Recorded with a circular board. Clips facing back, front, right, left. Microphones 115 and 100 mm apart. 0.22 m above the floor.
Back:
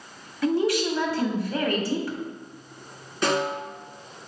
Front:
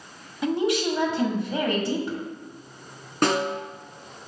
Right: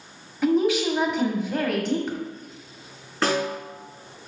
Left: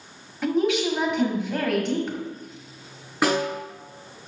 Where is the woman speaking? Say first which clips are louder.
Back 1 dB, right 2 dB; 5° right, 1.3 m.